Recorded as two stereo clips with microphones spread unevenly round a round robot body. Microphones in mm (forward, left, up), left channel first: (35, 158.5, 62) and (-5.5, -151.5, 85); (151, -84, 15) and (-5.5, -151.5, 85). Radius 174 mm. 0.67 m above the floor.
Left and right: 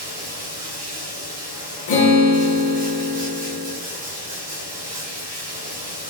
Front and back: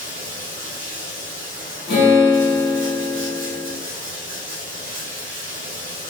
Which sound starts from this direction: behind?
Running water, at 0.0 s.